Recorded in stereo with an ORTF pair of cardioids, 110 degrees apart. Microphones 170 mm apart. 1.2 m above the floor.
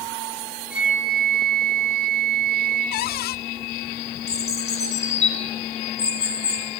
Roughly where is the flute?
Ahead.